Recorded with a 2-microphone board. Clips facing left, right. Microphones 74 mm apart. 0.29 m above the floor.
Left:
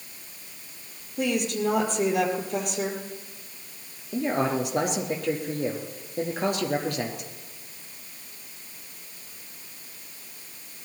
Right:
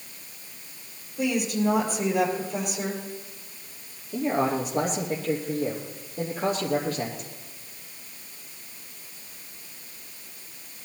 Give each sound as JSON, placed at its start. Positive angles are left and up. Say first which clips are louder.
{"t": 1.2, "sound": "a woman speaking", "louder": "right 1 dB", "side_deg": 60, "distance_m": 6.0}
{"t": 4.1, "sound": "a man speaking", "louder": "even", "side_deg": 75, "distance_m": 4.0}